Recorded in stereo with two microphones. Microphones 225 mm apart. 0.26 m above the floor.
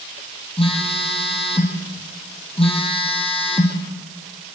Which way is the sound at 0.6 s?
25° left (ahead or behind).